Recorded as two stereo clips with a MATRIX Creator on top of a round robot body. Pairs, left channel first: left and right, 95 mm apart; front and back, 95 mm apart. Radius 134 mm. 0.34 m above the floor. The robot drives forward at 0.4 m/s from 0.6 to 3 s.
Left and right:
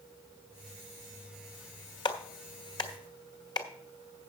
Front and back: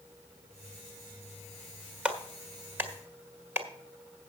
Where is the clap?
105° left, 1.8 m; by 3.7 s 120° left, 1.9 m.